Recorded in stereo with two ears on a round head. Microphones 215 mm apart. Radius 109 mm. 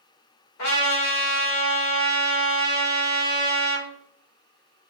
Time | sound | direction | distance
0.6 | a trumpet | 60° left (ahead or behind) | 1.0 m